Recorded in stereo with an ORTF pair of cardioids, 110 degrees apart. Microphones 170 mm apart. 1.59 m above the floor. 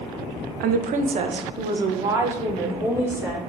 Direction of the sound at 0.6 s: 70° right.